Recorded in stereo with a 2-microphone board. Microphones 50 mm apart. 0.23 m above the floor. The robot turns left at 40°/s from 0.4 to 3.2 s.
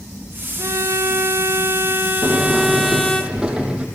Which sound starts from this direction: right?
A violin, at 0.6 s.